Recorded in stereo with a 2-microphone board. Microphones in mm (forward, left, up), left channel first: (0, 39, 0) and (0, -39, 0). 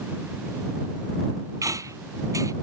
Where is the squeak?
45° right (ahead or behind).